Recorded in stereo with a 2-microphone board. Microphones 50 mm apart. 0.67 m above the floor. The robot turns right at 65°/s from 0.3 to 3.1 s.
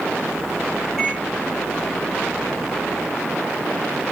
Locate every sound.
1.0 s a microwave: 10° right (ahead or behind), 4 m; by 1.2 s 10° left (ahead or behind), 4 m